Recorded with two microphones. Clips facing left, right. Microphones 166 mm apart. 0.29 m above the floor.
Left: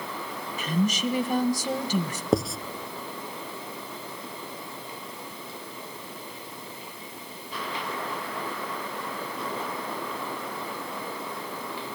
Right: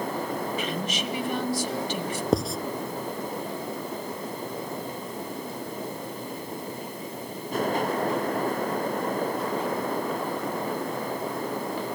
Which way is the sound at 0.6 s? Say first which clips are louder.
Left 3 dB; 40° left (ahead or behind).